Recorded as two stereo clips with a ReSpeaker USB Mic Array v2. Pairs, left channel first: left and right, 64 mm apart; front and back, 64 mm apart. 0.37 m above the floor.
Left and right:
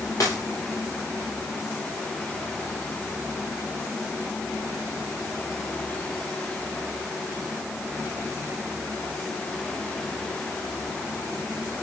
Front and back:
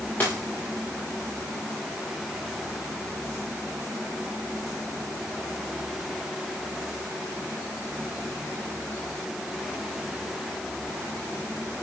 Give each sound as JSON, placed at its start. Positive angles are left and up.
{"t": 0.2, "sound": "a dropped coin", "azimuth_deg": 60, "distance_m": 9.0}